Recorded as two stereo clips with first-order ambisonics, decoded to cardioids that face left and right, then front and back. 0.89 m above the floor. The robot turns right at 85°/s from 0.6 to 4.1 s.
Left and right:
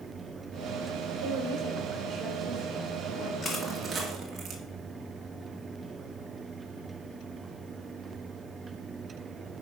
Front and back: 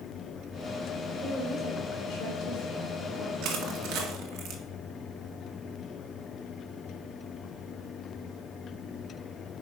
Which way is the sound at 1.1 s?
105° right.